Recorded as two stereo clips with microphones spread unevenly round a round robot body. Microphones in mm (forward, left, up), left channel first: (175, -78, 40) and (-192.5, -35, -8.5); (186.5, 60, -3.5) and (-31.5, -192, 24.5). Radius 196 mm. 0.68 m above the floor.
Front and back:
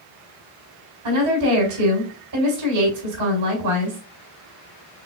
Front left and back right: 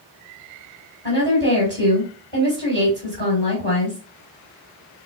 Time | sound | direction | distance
1.0 | a woman speaking | 125° left | 4 m